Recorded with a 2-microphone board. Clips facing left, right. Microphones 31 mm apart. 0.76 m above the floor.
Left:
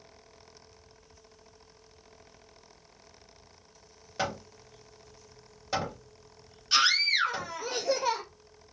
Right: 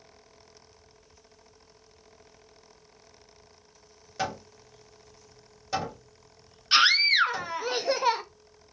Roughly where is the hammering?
Centre.